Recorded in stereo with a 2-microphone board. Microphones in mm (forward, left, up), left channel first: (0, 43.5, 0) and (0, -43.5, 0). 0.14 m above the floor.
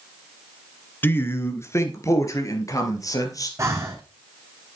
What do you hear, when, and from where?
1.0 s a man speaking: 25° left (ahead or behind), 1.4 m; by 3.5 s 40° left (ahead or behind), 3 m
3.6 s breathing: 30° right (ahead or behind), 1.8 m